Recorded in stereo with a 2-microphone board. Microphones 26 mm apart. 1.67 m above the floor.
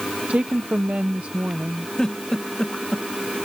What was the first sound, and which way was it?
A woman speaking, 70° right (ahead or behind).